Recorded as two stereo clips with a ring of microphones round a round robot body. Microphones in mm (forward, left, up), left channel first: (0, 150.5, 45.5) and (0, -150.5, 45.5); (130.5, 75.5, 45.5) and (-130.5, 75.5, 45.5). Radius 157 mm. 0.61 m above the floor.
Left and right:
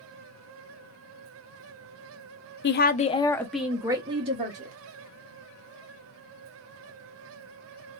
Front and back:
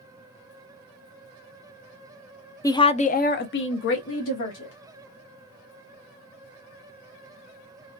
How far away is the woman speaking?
About 0.6 m.